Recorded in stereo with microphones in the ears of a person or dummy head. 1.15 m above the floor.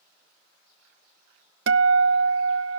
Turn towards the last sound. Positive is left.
turn(degrees=-65)  # may be behind; listen again after turning